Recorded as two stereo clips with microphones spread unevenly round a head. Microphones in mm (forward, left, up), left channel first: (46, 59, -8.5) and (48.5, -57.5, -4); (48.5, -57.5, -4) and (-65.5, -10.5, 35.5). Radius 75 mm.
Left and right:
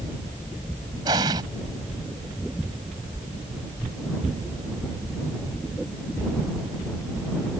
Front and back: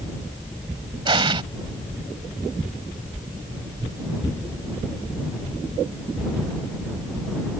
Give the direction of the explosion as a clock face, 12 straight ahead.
5 o'clock.